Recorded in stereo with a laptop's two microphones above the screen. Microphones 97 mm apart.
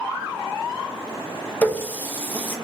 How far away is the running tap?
About 0.6 m.